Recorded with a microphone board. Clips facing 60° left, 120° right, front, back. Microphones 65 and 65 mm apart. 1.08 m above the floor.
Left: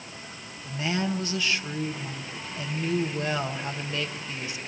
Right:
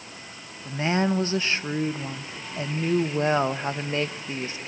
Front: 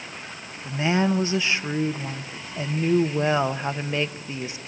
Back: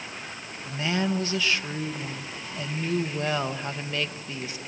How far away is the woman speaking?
About 0.8 m.